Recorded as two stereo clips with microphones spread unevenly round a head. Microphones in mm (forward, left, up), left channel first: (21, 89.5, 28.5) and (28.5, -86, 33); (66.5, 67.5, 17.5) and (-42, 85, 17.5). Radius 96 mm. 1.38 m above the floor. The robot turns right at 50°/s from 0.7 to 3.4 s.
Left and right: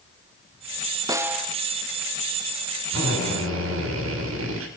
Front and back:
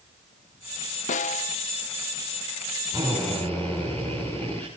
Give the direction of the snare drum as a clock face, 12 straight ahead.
1 o'clock.